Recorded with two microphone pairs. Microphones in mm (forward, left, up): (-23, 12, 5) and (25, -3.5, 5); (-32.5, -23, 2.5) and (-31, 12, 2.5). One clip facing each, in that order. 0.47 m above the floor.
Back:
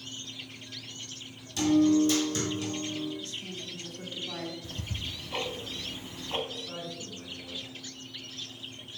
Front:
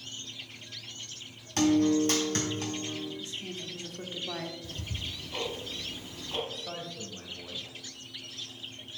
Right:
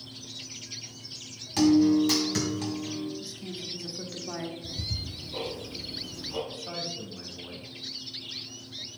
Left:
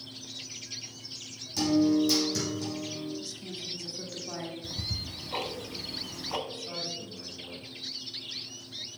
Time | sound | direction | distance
1.6 | a guitar | 55° right | 3 m
3.2 | a woman speaking | 40° right | 1.2 m
4.6 | ticking | 95° left | 1.3 m
6.5 | a man speaking | 35° right | 2.5 m